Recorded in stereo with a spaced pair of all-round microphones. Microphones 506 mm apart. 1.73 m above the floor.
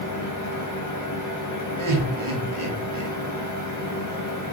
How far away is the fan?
About 0.8 m.